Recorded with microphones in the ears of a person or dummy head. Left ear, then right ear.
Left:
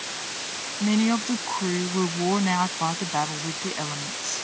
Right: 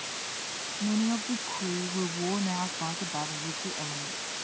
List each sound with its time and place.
0.8 s a woman speaking: 70° left (ahead or behind)